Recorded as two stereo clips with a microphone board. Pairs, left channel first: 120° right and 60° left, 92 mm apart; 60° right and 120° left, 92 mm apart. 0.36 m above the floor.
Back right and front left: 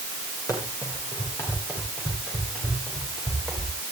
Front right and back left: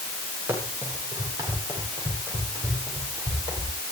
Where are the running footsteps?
175° right, 9.5 m; by 3.7 s 160° left, 11 m.